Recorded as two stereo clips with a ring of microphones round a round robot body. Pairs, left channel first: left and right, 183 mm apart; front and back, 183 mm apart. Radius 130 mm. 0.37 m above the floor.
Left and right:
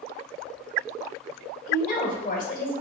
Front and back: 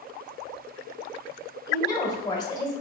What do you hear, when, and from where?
1.7 s a woman speaking: 65° left, 1.3 m